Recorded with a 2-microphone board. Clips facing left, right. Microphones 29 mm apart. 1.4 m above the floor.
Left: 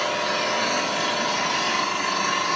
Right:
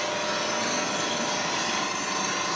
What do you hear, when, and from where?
0.0 s an engine running: 45° left (ahead or behind), 8.5 m